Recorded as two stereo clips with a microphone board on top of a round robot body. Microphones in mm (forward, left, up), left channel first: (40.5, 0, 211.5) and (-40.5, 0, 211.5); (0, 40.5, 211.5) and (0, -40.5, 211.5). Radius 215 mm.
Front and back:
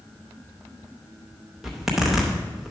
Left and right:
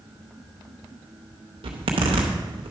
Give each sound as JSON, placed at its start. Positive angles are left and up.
{"t": 1.6, "sound": "a zipper", "azimuth_deg": -95, "distance_m": 0.6}